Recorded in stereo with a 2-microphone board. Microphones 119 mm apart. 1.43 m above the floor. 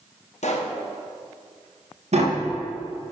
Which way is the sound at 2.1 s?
65° right (ahead or behind).